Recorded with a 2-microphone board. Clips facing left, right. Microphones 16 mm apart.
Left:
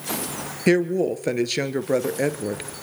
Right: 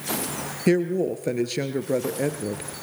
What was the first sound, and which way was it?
A woman speaking, 25° left (ahead or behind).